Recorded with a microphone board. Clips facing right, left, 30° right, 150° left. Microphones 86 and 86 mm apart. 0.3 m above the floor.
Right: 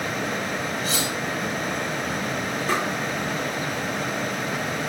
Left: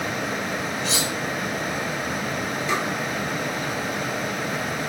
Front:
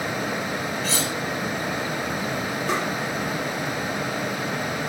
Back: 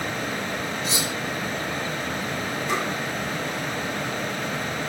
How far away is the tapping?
About 6 m.